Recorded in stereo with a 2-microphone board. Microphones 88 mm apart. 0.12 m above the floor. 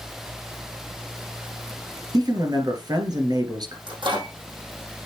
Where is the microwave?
60° right (ahead or behind), 4 m.